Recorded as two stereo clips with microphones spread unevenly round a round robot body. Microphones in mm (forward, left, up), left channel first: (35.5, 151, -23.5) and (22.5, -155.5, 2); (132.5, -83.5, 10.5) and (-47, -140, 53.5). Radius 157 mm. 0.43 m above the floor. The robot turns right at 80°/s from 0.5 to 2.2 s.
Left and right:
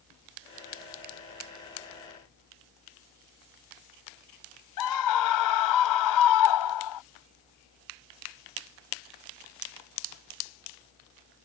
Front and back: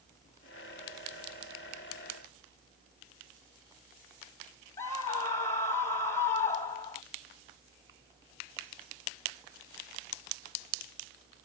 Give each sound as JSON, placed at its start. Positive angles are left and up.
{"t": 4.8, "sound": "a scream", "azimuth_deg": 90}